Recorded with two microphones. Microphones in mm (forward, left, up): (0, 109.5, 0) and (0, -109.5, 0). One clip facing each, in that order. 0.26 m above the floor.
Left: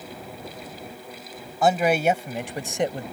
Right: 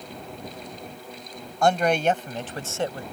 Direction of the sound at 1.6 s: 5° left (ahead or behind).